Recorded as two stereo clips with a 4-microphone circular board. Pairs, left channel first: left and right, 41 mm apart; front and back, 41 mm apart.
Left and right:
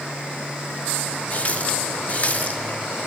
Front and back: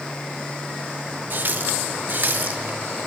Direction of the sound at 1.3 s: 140° left.